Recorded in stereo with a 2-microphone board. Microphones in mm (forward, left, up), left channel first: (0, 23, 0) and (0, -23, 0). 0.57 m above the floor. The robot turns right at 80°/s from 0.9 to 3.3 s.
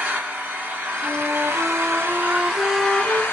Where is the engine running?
145° right, 1.8 m; by 3.3 s 50° left, 1.8 m.